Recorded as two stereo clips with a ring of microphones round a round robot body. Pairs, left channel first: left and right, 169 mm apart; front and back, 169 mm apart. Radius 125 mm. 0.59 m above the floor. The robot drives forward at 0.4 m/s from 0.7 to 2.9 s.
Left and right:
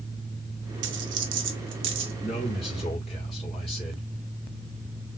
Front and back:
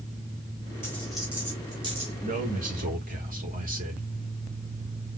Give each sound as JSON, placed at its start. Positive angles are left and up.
{"t": 0.8, "sound": "a dropped coin", "azimuth_deg": -80, "distance_m": 0.8}
{"t": 2.2, "sound": "a man speaking", "azimuth_deg": 145, "distance_m": 1.4}